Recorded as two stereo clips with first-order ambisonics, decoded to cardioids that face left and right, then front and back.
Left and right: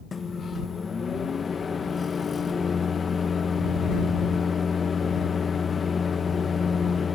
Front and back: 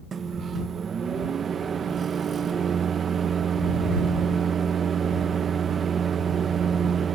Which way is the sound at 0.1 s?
145° left.